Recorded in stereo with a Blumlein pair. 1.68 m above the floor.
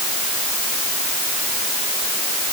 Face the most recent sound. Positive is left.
No sound to turn to.